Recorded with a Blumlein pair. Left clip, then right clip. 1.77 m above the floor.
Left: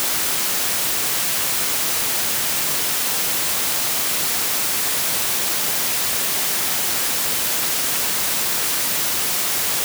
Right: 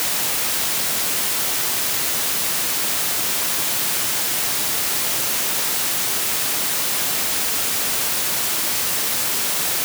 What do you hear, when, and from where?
Only background noise.